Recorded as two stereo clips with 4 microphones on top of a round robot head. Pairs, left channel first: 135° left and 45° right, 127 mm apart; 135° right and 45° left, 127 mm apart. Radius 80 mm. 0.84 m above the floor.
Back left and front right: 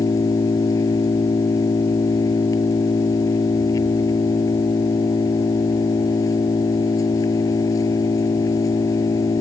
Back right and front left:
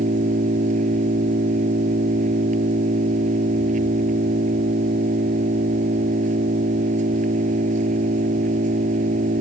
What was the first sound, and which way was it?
An engine running, 70° left.